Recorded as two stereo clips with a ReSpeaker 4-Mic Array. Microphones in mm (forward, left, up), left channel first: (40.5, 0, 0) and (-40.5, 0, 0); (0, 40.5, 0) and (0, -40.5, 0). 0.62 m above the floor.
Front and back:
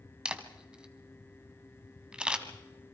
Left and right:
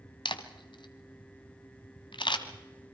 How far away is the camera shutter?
About 1.5 m.